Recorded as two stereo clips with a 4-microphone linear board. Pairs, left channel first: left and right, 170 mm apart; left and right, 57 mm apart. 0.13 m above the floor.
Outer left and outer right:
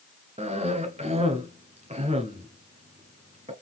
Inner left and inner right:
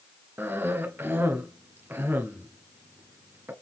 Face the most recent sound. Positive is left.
turn(degrees=-40)  # may be behind; listen again after turning